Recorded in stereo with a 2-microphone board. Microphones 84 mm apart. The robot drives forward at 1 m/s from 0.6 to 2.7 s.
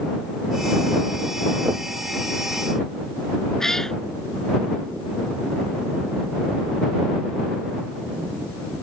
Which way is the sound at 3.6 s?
5° left (ahead or behind).